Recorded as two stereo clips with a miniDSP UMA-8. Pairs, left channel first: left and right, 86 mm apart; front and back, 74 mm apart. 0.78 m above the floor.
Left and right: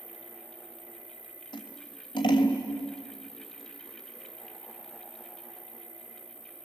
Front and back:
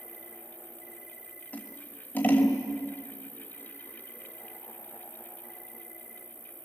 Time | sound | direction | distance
0.0 | an insect | 95° right | 2.5 m
1.5 | scissors | 65° left | 2.5 m